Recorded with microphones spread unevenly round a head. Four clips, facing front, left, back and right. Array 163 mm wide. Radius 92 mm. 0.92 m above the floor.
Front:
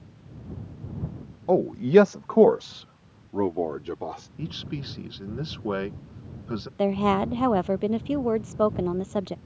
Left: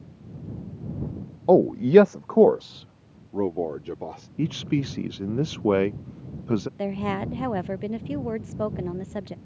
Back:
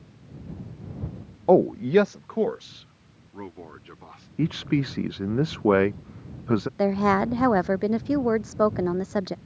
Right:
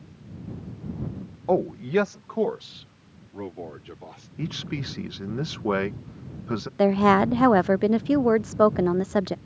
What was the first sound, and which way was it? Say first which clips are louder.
A man speaking: left 7 dB, back 1 dB; 145° left.